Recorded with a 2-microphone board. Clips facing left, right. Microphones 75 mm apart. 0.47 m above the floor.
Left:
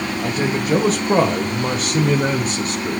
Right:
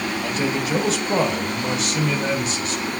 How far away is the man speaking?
About 2.5 m.